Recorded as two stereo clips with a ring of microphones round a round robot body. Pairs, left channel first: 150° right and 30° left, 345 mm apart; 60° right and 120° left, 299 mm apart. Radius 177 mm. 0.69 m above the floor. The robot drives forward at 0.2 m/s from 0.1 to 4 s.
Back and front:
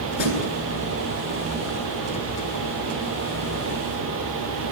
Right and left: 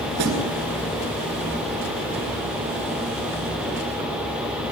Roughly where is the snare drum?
Behind.